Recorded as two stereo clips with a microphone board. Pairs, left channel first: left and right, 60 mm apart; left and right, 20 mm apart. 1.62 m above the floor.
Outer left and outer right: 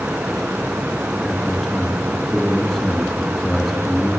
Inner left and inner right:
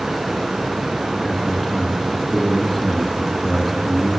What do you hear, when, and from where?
1.2 s a man speaking: 5° right (ahead or behind), 3.5 m